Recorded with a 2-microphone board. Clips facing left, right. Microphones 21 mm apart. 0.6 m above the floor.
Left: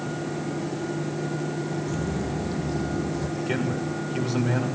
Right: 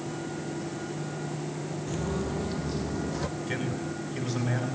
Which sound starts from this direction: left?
A man speaking, at 3.4 s.